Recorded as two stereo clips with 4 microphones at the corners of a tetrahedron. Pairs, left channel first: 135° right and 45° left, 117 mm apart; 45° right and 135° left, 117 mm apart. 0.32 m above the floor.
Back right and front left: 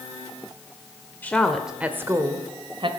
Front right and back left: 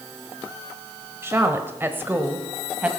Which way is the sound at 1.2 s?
170° left.